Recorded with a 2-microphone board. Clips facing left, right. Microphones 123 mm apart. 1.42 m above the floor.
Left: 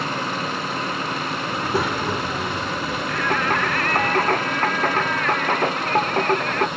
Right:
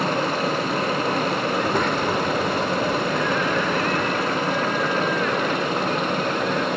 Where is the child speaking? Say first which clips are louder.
Right 2 dB; 5° left (ahead or behind).